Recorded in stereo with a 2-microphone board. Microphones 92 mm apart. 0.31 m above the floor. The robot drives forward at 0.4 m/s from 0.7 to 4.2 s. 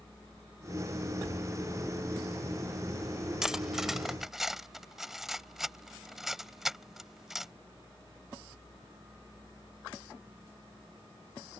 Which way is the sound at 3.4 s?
5° right (ahead or behind).